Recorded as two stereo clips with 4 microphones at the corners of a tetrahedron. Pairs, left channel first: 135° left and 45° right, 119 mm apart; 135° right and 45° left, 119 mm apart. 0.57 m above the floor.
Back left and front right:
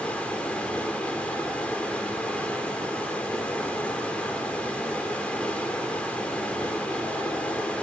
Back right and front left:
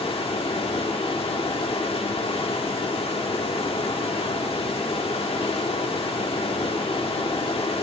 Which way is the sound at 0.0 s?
150° right.